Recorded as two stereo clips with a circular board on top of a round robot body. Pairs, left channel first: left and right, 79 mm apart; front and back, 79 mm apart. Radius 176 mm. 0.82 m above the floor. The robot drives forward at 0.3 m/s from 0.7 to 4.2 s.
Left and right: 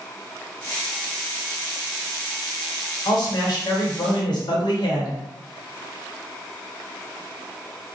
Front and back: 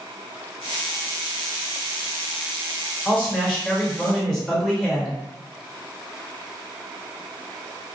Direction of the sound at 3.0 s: 65° left.